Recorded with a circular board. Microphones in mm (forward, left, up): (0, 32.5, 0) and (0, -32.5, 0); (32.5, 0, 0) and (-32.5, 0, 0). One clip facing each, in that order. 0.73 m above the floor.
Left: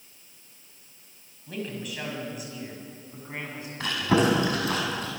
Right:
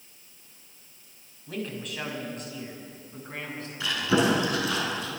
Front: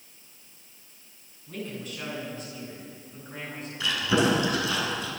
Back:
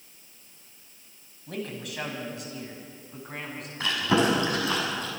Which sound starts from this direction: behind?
A man speaking, at 1.5 s.